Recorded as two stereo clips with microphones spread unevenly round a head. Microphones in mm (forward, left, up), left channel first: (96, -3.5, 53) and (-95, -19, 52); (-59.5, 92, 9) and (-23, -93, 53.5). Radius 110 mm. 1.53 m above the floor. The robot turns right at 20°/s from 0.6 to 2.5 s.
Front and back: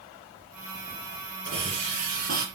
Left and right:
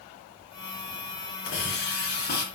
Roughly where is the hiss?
Behind left.